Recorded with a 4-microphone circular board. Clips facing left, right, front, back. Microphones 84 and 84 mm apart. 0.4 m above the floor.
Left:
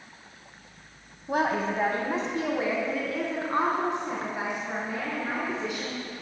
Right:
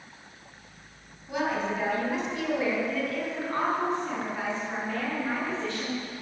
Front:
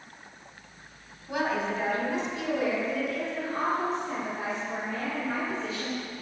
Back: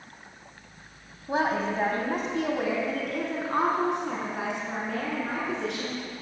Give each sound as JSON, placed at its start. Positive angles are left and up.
{"t": 1.3, "sound": "a woman speaking", "azimuth_deg": 125, "distance_m": 3.0}